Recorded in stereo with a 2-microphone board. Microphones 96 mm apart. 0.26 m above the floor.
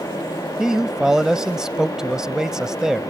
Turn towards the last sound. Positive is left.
turn(degrees=-5)  # may be behind; listen again after turning